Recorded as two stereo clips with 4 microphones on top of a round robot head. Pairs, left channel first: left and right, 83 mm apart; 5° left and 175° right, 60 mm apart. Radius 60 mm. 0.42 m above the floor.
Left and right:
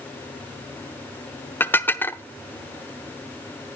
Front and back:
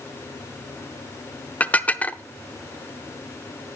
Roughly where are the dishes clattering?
Ahead left.